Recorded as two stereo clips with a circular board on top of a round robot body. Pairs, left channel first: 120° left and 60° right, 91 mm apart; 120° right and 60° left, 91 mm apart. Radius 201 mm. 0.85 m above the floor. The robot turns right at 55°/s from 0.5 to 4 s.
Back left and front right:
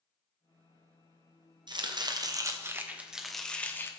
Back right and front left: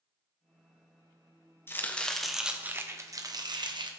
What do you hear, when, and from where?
1.7 s chopping: 60° right, 1.4 m; by 3.9 s 60° left, 1.4 m